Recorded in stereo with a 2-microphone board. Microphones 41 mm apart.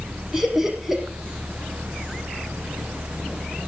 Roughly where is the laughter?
Centre.